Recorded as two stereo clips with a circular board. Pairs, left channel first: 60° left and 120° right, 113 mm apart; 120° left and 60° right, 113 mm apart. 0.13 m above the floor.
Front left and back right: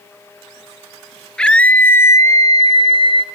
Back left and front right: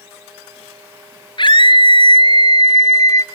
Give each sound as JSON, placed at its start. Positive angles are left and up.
{"t": 1.4, "sound": "a scream", "azimuth_deg": 140, "distance_m": 2.5}